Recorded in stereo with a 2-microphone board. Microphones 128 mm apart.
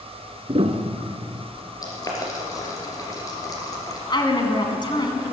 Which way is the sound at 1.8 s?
30° left (ahead or behind).